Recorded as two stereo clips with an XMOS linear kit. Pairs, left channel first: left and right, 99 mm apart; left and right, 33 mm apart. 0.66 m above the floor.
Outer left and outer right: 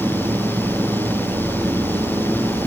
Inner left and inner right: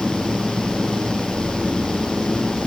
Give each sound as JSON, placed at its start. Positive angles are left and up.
{"t": 0.0, "sound": "an engine running", "side_deg": -40}